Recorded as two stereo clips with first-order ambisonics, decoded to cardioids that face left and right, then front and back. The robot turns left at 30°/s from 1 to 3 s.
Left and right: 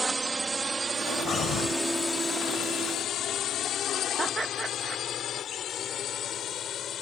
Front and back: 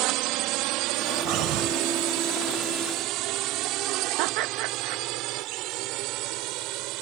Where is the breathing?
150° left; by 1.8 s 135° left.